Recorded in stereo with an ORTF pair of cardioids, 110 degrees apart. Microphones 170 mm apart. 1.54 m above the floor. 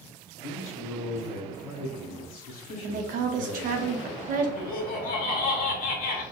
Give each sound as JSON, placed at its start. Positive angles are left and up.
{"t": 0.4, "sound": "a man speaking", "azimuth_deg": 60, "distance_m": 1.3}
{"t": 2.8, "sound": "a woman speaking", "azimuth_deg": -55, "distance_m": 0.7}
{"t": 4.6, "sound": "laughter", "azimuth_deg": 60, "distance_m": 1.1}